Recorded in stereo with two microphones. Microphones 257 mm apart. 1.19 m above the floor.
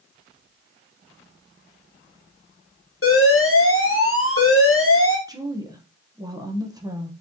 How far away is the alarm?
About 1.0 m.